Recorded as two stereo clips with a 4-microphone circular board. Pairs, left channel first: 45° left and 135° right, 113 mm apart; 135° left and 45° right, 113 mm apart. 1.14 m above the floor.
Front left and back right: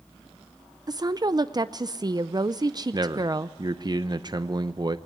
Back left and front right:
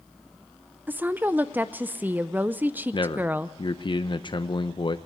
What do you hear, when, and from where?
0.9 s a woman speaking: 110° right, 0.5 m
2.9 s a man speaking: 175° left, 0.7 m